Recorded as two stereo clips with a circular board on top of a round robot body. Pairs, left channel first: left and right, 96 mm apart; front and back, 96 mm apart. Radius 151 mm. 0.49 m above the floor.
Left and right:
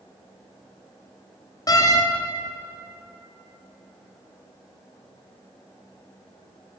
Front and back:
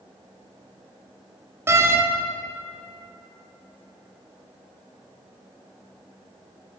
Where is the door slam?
125° left, 0.9 m.